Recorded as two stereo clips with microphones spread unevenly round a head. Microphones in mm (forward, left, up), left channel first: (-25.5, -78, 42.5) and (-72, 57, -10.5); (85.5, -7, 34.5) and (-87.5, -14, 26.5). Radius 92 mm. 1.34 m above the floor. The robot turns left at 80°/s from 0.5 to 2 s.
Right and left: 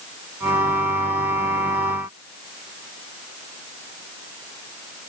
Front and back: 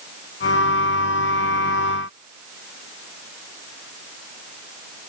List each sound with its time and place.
Only background noise.